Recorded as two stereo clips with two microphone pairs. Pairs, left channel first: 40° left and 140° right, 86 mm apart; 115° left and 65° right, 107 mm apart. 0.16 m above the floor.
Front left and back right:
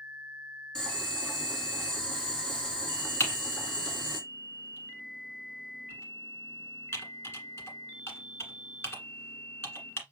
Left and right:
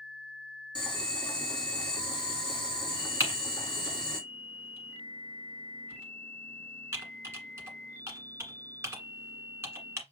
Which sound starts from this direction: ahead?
Typing on a keyboard, at 3.2 s.